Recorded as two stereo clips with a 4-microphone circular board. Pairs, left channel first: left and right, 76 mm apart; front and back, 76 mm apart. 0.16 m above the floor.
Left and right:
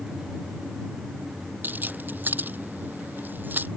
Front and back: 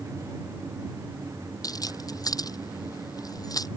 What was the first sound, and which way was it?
Keys jangling, 25° right.